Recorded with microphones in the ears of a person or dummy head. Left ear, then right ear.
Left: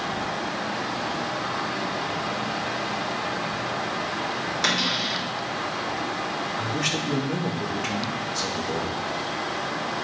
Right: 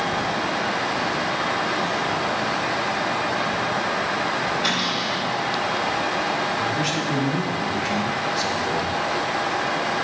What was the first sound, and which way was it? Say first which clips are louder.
A cupboard door: right 1 dB; 65° left (ahead or behind).